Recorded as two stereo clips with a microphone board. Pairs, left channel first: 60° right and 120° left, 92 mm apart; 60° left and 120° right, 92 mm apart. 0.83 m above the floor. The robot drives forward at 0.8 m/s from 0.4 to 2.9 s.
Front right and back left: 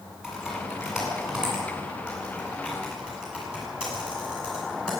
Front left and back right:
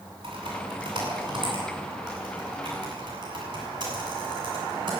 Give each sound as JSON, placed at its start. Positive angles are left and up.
{"t": 0.2, "sound": "typing on a keyboard", "azimuth_deg": -155, "distance_m": 9.0}